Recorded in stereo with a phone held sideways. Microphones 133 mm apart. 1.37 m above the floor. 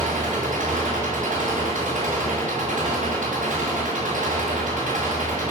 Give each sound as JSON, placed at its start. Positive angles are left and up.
{"t": 0.0, "sound": "an engine running", "side_deg": -70, "distance_m": 9.0}